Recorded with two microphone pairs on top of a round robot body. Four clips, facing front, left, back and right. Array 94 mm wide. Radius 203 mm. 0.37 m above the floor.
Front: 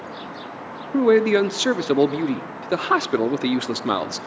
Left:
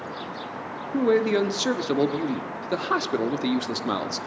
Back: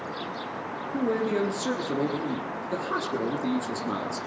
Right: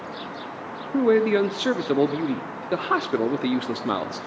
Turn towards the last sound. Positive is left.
turn(degrees=0)